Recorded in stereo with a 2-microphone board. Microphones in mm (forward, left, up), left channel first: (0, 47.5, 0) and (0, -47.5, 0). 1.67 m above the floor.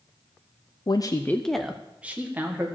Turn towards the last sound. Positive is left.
turn(degrees=-25)  # may be behind; listen again after turning